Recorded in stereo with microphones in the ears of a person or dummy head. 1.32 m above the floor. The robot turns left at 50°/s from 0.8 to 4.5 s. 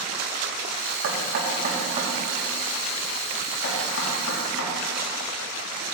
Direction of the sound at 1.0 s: 70° right (ahead or behind).